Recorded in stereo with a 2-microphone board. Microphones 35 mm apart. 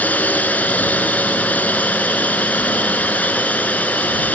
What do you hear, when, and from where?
0.0 s a drone: 50° left (ahead or behind)